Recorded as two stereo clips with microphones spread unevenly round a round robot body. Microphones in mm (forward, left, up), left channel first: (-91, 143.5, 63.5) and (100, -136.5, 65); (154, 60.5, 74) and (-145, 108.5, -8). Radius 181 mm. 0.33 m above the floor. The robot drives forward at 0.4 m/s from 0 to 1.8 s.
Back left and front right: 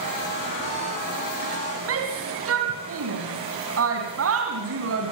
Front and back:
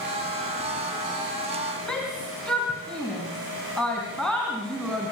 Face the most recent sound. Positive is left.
turn(degrees=-100)